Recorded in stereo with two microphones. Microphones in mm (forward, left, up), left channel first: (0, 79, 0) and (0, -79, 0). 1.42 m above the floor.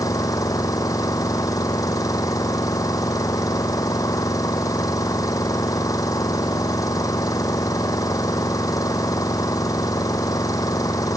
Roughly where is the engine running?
Left.